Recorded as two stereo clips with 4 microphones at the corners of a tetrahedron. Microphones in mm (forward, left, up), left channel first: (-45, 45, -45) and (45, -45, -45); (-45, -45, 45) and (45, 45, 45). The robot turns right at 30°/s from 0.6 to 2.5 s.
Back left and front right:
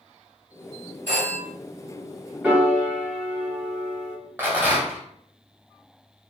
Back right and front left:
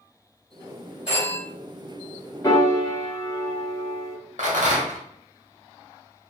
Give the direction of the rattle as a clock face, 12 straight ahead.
11 o'clock.